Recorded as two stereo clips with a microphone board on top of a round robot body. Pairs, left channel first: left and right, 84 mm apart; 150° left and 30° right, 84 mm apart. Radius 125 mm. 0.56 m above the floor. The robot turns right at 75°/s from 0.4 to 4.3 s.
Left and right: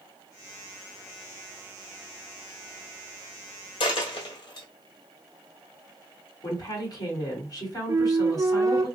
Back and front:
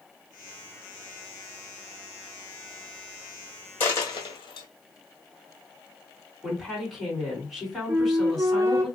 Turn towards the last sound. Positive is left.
turn(degrees=-70)